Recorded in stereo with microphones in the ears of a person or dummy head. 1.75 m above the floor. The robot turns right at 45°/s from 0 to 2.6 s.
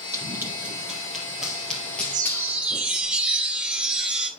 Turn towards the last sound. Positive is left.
turn(degrees=-10)  # may be behind; listen again after turning